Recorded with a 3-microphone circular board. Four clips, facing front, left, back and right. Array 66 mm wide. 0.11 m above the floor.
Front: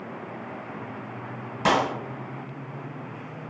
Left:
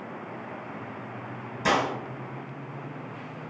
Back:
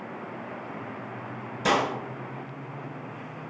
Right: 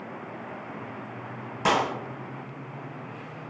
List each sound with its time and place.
1.6 s a clap: 35° right, 1.8 m